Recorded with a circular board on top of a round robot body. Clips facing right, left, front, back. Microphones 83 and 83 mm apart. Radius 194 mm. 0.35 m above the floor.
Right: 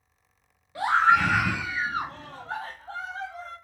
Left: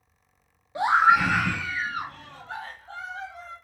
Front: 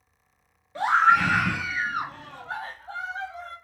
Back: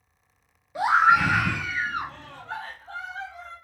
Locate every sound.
0.8 s a scream: 115° left, 0.8 m; by 3.5 s 70° right, 1.4 m